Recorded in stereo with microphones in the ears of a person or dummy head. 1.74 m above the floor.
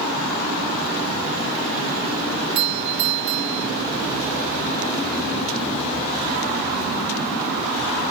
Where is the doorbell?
60° right (ahead or behind).